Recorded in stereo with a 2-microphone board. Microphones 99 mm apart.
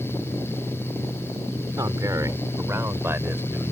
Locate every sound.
1.8 s a man speaking: 35° right (ahead or behind); by 3.7 s 20° right (ahead or behind)